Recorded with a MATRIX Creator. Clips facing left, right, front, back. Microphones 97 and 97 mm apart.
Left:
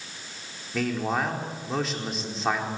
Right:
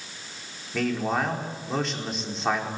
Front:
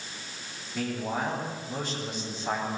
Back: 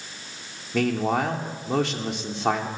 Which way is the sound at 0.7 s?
Straight behind.